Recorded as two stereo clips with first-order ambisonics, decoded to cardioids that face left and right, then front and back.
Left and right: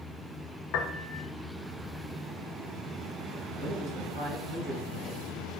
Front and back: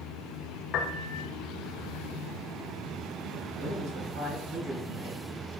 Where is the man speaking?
160° left, 5.5 m.